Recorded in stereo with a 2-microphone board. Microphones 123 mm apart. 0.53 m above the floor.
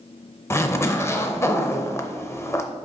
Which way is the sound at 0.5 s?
20° left (ahead or behind).